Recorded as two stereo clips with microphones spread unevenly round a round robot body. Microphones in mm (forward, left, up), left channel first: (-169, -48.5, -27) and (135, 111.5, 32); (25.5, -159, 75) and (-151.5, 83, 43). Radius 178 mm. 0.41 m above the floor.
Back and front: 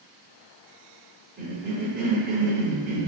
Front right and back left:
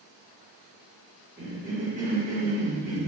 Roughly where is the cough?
Left.